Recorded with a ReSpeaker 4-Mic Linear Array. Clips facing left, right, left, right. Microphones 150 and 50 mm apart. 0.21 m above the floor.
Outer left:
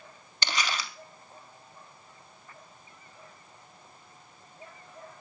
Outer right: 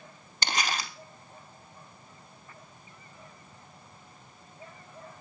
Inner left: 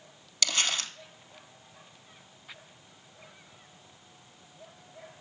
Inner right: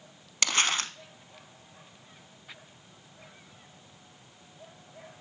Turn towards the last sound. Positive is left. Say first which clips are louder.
# outer right 1 dB, inner right 3 dB
turn(degrees=-45)  # may be behind; listen again after turning